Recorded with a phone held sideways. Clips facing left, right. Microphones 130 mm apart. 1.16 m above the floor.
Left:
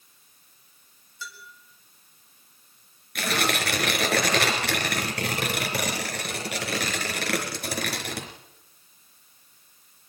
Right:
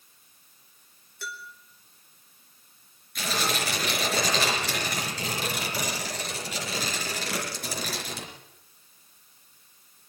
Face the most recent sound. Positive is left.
turn(degrees=70)  # may be behind; listen again after turning